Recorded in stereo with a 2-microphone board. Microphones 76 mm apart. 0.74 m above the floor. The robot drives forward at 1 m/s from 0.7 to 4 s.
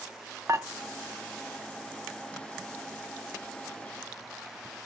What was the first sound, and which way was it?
Dishes clattering, 40° right (ahead or behind).